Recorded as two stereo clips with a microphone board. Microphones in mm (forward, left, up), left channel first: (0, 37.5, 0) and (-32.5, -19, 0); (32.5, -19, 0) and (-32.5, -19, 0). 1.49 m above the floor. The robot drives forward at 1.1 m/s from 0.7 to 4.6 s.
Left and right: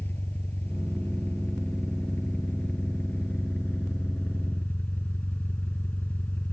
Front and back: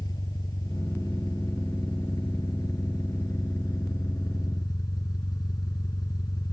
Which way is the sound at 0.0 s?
Straight ahead.